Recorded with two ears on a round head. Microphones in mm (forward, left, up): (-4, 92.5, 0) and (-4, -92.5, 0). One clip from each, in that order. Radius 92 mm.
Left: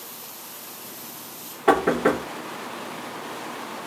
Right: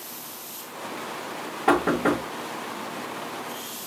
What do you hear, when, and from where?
1.7 s knocking: 10° left (ahead or behind), 1.0 m